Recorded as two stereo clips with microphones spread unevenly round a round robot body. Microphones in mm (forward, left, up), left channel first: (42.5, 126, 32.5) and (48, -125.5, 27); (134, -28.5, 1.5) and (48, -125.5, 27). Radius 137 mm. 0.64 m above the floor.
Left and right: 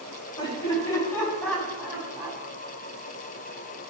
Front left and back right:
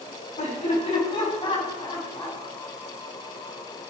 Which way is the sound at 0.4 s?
20° left.